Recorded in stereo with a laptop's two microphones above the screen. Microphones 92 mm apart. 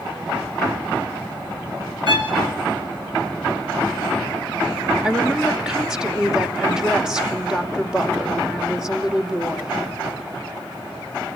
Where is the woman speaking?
10° right (ahead or behind), 2.5 m.